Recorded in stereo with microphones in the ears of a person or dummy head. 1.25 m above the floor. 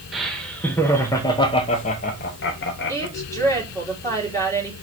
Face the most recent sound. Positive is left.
turn(degrees=15)  # may be behind; listen again after turning